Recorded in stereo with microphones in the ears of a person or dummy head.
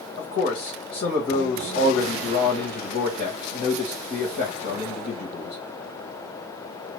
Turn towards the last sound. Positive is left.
turn(degrees=85)